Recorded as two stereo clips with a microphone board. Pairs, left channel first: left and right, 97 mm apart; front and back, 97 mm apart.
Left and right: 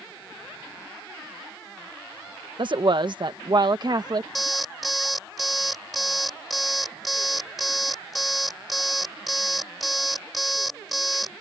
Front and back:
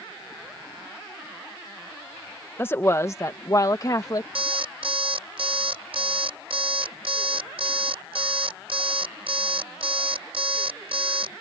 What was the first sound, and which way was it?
A woman speaking, 65° right.